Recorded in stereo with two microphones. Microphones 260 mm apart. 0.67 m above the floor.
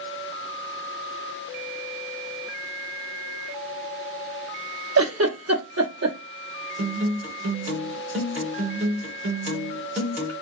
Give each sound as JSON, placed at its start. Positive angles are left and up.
{"t": 5.0, "sound": "a giggle", "side_deg": -65, "distance_m": 0.8}
{"t": 6.8, "sound": "a guitar", "side_deg": -50, "distance_m": 1.2}